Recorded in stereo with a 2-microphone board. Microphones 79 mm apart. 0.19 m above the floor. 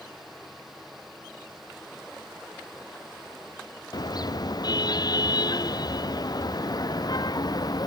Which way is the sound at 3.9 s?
55° left (ahead or behind).